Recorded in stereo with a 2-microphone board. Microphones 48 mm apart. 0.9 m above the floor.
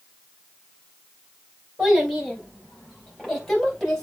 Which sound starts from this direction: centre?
A child speaking, at 1.8 s.